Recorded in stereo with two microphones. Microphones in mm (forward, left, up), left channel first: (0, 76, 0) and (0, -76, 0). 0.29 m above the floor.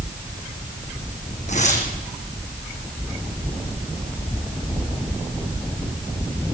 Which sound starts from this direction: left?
Tearing paper, at 1.5 s.